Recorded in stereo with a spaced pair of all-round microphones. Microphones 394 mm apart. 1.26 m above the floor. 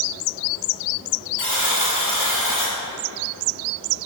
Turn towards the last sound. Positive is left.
turn(degrees=50)  # may be behind; listen again after turning